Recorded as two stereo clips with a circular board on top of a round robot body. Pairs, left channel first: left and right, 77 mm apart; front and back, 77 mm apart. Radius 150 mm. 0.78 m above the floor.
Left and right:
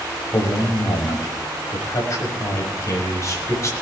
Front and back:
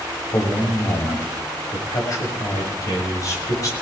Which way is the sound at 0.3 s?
40° left.